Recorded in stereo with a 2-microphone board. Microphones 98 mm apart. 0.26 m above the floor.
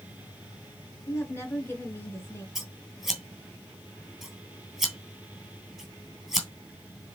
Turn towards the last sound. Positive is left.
turn(degrees=0)  # may be behind; listen again after turning